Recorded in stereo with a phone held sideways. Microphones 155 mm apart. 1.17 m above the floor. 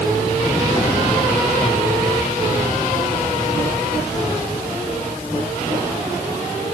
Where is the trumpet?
No trumpet in this recording.